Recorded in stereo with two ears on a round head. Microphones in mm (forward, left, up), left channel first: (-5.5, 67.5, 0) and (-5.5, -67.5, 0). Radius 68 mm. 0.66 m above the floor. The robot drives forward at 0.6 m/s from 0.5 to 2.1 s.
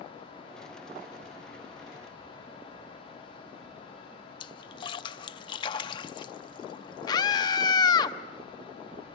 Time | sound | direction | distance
4.4 | a splash | 30° left (ahead or behind) | 0.5 m
7.1 | a scream | 25° left (ahead or behind) | 0.8 m